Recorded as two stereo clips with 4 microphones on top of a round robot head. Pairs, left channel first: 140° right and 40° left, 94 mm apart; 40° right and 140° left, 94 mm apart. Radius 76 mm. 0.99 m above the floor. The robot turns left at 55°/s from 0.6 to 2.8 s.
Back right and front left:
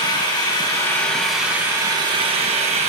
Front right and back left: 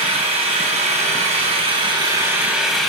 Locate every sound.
0.0 s an engine running: 170° left, 2 m; by 2.9 s 50° left, 2 m